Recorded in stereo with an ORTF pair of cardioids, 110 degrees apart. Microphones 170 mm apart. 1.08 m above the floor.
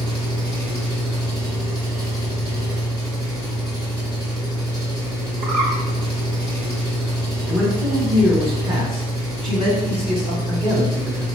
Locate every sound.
0.0 s an engine running: 25° right, 1.6 m
5.4 s a bird: 55° right, 1.1 m
7.5 s a man speaking: 30° right, 1.8 m